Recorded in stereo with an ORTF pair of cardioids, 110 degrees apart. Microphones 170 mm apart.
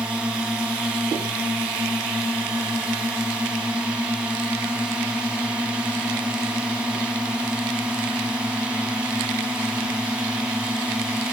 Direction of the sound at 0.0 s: 5° right.